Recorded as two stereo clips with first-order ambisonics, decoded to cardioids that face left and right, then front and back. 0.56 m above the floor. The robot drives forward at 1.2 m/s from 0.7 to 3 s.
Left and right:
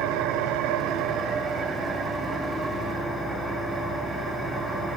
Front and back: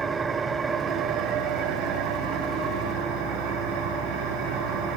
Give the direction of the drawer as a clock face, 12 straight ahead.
No drawer in this recording.